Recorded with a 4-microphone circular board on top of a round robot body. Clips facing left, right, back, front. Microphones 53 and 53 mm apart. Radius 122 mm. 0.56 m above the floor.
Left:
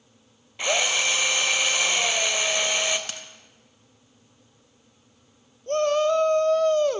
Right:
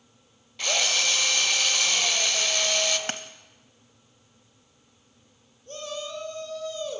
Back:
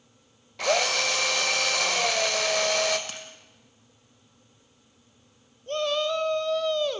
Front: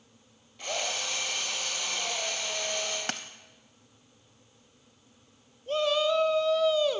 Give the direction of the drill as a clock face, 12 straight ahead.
7 o'clock.